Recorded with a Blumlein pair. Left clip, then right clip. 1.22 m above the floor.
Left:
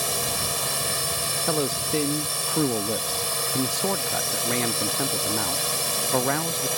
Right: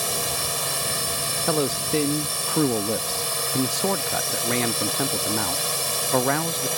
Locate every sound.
0.0 s a drone: 5° right
1.5 s a man speaking: 10° right